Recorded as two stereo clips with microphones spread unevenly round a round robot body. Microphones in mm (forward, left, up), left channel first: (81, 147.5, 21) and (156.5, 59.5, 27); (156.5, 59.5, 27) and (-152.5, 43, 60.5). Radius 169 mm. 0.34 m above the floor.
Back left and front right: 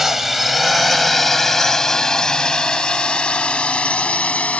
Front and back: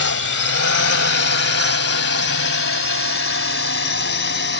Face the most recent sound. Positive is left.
turn(degrees=55)